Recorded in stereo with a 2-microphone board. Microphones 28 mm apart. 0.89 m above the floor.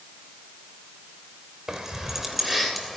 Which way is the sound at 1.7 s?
20° right (ahead or behind).